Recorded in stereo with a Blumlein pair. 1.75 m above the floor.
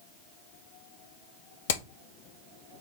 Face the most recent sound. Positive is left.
turn(degrees=55)